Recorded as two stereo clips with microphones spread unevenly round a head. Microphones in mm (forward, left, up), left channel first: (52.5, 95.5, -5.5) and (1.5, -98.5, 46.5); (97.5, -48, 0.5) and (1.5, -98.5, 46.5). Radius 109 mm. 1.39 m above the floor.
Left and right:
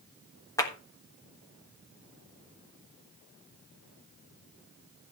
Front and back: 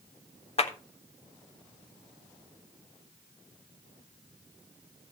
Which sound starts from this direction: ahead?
A clap, at 0.6 s.